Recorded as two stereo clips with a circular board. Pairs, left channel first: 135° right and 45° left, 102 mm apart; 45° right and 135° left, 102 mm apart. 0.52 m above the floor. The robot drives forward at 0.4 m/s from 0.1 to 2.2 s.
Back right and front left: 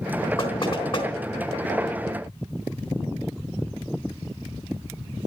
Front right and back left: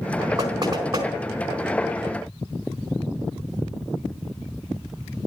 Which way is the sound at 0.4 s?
170° right.